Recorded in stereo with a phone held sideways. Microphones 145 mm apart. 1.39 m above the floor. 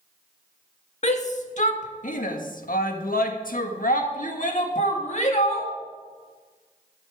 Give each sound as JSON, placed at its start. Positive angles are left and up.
{"t": 1.0, "sound": "a shout", "side_deg": 55, "distance_m": 1.8}